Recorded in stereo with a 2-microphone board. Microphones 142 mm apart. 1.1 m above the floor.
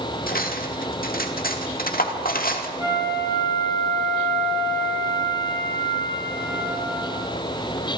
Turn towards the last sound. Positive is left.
turn(degrees=-15)  # may be behind; listen again after turning